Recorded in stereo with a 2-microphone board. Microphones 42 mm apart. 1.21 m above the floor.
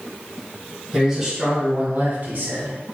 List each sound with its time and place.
0.9 s a man speaking: 5° right (ahead or behind), 1.6 m; by 2.8 s 65° right (ahead or behind), 1.2 m